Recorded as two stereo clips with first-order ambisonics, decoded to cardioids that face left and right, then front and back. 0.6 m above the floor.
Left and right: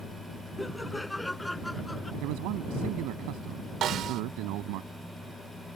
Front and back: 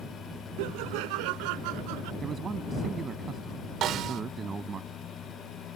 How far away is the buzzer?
I don't hear a buzzer.